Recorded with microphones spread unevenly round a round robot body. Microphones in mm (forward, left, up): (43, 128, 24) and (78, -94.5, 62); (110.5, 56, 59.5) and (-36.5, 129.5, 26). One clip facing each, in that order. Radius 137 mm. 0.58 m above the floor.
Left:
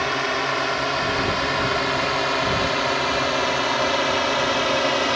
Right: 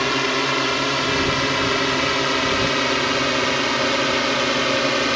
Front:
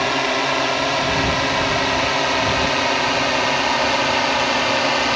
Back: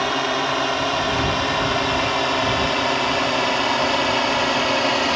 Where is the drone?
115° right; by 5.2 s 135° right.